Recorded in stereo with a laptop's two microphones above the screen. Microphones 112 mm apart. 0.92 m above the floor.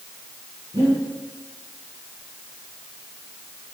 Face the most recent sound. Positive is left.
turn(degrees=-35)  # may be behind; listen again after turning